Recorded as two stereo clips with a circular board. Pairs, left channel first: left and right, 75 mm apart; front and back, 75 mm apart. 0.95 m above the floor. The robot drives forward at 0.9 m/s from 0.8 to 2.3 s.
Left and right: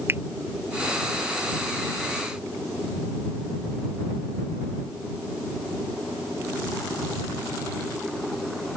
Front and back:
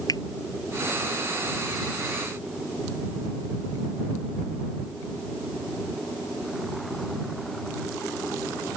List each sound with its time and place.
0.1 s a finger snap: 30° right